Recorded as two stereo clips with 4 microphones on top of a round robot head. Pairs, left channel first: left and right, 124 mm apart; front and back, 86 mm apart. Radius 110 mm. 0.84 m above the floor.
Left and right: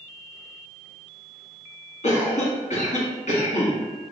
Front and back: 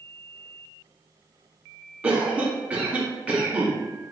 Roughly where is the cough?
Left.